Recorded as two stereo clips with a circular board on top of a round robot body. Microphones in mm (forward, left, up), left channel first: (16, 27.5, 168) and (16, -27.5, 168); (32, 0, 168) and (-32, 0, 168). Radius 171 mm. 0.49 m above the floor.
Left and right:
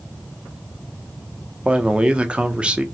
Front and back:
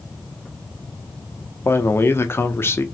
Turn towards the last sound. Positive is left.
turn(degrees=-30)